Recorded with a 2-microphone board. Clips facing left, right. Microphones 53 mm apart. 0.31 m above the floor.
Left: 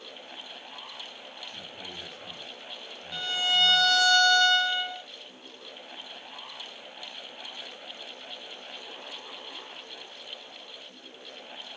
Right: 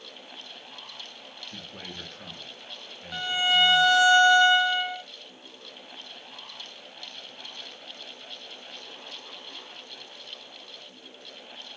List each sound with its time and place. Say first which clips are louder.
1.4 s a man speaking: right 2 dB; 75° right (ahead or behind), 3.5 m; by 4.1 s 50° right (ahead or behind), 5.5 m
3.1 s a violin: right 3 dB; 25° right (ahead or behind), 0.6 m